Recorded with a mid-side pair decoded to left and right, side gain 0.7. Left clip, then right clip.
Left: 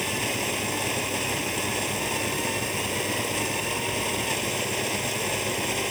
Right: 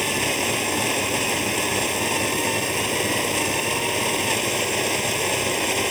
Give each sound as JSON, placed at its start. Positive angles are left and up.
{"t": 0.0, "sound": "a machine running", "azimuth_deg": -20}